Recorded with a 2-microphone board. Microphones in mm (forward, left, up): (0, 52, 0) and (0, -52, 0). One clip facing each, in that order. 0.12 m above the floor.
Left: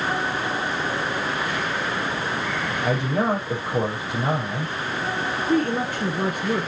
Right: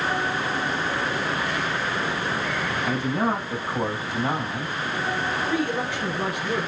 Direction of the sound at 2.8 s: 75° left (ahead or behind).